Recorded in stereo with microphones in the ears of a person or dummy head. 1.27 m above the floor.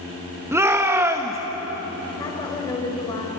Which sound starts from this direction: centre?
A shout, at 0.5 s.